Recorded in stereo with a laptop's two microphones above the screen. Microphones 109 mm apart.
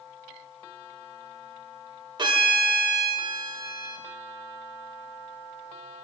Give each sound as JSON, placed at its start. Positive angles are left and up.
{"t": 2.2, "sound": "a violin", "side_deg": -40, "distance_m": 0.8}